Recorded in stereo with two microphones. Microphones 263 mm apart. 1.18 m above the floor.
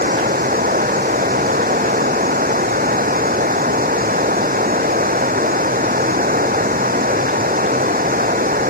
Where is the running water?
30° right (ahead or behind).